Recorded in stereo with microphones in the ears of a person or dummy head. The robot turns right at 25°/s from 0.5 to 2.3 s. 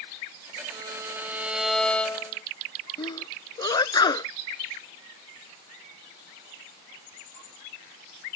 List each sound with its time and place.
0.7 s a violin: 25° right; by 2.4 s 15° left
3.0 s a sneeze: 25° left (ahead or behind)